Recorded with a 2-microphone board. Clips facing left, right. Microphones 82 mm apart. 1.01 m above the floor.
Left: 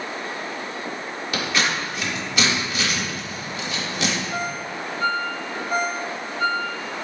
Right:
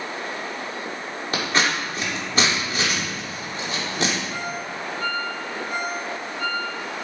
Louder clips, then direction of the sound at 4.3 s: Left 2 dB; 35° left (ahead or behind).